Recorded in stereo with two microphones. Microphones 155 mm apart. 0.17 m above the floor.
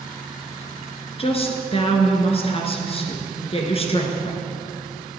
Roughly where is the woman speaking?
Left.